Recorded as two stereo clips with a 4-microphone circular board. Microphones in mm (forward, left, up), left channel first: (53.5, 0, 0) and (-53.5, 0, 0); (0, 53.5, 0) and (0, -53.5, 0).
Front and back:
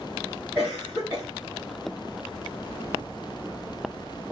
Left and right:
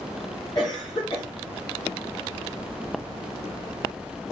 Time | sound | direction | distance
0.6 | a cough | 115° left | 1.3 m